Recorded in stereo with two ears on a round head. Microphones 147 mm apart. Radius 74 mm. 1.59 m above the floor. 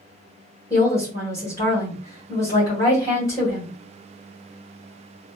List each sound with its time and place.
0.7 s a woman speaking: 20° left (ahead or behind), 1.4 m